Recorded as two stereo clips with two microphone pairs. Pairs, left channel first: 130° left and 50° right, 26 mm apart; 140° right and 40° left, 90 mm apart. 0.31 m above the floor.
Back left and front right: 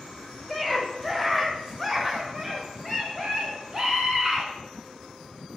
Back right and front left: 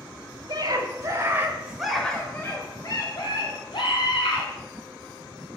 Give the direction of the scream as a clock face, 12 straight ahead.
11 o'clock.